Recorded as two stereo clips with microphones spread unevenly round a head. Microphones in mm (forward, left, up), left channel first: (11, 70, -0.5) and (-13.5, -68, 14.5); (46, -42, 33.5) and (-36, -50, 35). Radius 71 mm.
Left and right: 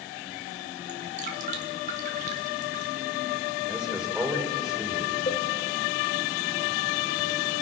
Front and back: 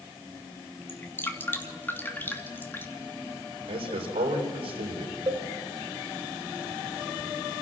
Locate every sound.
0.9 s dripping: 60° right, 2.5 m
3.7 s a man speaking: 175° left, 4 m
5.3 s a cowbell: 130° left, 1.7 m